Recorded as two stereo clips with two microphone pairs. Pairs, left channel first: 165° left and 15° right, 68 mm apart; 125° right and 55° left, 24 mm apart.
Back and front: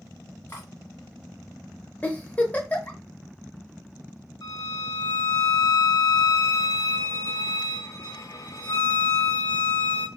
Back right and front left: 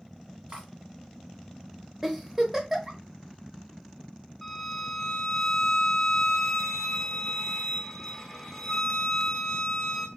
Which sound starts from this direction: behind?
A violin, at 4.4 s.